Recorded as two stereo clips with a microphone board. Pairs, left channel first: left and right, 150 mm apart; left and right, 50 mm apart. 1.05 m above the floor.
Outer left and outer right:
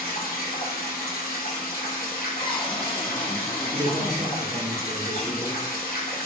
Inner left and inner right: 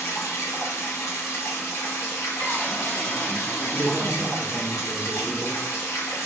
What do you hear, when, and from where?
0.0 s running water: 85° left, 0.9 m
2.4 s a cupboard door: 35° left (ahead or behind), 0.7 m
3.7 s a man speaking: 25° right (ahead or behind), 1.2 m